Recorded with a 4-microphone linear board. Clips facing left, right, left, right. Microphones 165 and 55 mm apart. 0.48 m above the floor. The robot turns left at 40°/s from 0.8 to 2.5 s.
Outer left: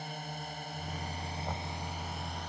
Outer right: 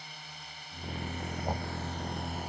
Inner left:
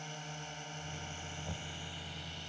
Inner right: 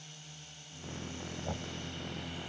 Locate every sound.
0.0 s a drone: 55° left; by 2.5 s 10° right
1.4 s knocking: 30° right (ahead or behind); by 1.8 s 40° right (ahead or behind)